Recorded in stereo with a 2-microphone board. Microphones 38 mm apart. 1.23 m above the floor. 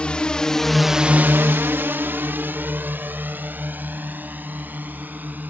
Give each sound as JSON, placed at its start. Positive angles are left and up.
{"t": 0.0, "sound": "a drone", "side_deg": 25}